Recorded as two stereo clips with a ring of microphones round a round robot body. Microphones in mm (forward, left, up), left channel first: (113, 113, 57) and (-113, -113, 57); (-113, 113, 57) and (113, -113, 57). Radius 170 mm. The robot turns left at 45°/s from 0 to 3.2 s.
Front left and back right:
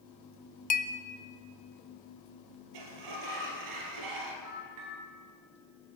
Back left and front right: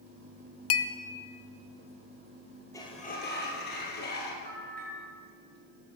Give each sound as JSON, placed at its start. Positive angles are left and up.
{"t": 0.7, "sound": "a clink", "azimuth_deg": 105, "distance_m": 0.7}
{"t": 2.7, "sound": "a sliding door", "azimuth_deg": -145, "distance_m": 1.8}
{"t": 4.5, "sound": "a bell", "azimuth_deg": -105, "distance_m": 3.0}